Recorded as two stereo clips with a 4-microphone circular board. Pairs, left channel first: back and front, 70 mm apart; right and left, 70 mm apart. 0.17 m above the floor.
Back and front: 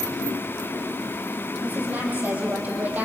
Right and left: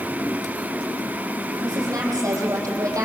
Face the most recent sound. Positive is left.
turn(degrees=65)